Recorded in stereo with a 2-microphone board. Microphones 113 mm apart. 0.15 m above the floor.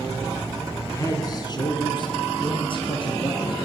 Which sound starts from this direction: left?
A man speaking, at 0.9 s.